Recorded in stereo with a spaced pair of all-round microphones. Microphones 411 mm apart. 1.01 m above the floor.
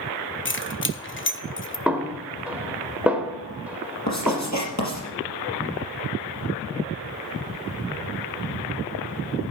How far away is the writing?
About 4 m.